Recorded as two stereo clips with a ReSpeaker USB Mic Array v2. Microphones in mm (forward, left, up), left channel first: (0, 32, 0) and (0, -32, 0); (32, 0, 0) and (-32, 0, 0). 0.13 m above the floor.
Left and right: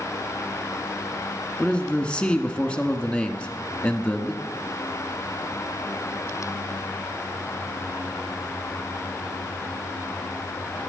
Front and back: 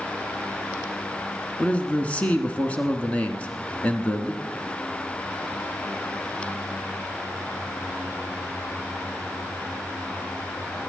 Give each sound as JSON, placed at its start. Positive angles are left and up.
{"t": 1.6, "sound": "a man speaking", "azimuth_deg": 40, "distance_m": 1.2}